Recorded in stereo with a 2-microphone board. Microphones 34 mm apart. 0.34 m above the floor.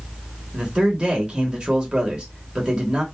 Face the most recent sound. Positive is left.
turn(degrees=-25)  # may be behind; listen again after turning